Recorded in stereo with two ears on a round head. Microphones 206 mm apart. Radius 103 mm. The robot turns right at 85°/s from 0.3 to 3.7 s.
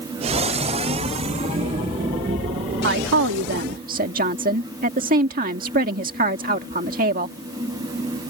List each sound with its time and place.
2.8 s a woman speaking: 120° right; by 7.3 s 45° right